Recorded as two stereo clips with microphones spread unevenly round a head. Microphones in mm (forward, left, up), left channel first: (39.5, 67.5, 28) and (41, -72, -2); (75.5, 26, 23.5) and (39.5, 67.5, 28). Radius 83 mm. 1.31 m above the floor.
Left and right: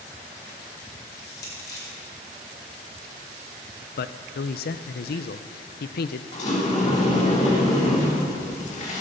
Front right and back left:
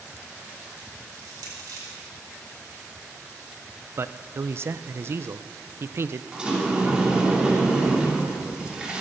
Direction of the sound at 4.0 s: 85° left.